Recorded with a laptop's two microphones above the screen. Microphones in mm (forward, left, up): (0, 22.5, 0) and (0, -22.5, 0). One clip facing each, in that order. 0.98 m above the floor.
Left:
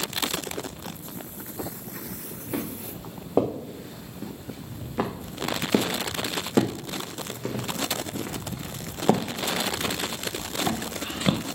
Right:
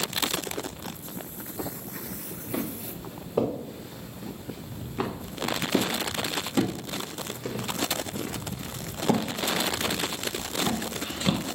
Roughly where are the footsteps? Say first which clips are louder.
Even; left.